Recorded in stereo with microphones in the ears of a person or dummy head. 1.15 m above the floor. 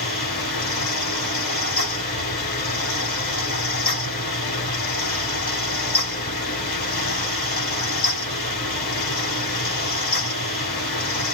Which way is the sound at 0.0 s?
50° left (ahead or behind).